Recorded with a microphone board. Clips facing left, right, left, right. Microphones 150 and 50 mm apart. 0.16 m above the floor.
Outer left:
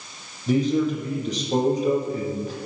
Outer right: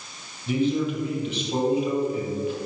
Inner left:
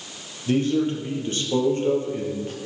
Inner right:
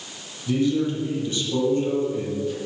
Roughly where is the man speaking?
Left.